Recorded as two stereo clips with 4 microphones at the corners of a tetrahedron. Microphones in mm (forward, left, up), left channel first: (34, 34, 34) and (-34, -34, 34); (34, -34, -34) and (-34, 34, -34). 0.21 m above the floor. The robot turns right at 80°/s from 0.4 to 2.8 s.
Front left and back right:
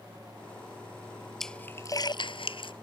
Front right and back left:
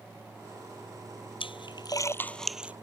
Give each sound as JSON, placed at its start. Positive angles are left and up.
{"t": 1.4, "sound": "a splash", "azimuth_deg": -45}